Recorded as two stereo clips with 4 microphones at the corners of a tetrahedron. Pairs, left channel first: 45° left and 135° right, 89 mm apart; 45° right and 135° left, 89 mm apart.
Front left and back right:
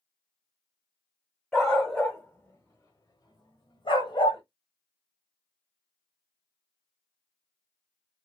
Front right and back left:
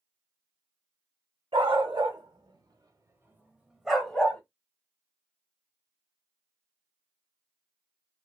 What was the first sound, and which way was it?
A dog barking, 130° left.